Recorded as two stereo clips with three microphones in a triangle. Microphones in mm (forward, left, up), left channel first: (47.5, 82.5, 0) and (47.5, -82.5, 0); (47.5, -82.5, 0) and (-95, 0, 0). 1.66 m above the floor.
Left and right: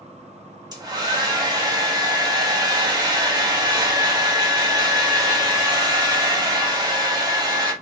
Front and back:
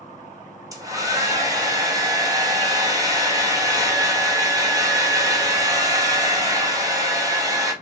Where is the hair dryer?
145° right, 1.0 m.